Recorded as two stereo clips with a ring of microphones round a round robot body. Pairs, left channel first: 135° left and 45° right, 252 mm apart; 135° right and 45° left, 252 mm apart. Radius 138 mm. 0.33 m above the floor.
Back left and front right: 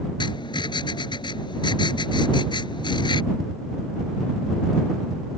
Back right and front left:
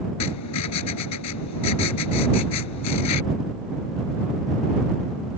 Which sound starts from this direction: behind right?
Writing, at 0.2 s.